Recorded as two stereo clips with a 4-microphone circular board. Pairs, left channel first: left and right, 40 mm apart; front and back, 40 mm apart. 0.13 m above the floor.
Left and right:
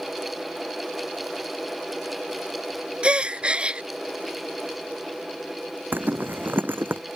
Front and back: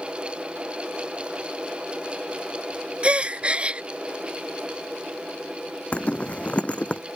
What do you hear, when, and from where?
3.0 s a gasp: 135° right
5.9 s a zipper: 55° right